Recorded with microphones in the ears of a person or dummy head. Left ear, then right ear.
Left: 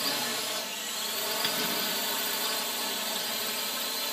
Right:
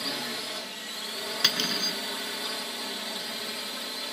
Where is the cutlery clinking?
25° right (ahead or behind).